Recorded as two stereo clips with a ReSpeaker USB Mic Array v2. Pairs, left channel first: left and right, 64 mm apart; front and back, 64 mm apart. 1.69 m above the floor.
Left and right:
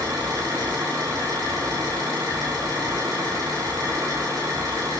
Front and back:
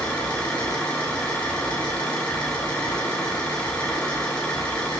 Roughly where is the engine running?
Right.